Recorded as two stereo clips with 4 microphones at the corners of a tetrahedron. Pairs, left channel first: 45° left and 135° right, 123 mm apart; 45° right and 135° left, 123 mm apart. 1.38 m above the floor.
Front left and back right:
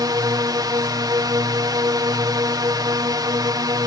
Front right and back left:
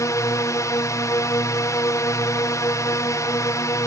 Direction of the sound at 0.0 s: 95° right.